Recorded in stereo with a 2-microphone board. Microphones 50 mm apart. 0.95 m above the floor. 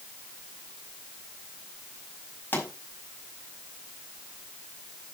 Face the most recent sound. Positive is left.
turn(degrees=35)  # may be behind; listen again after turning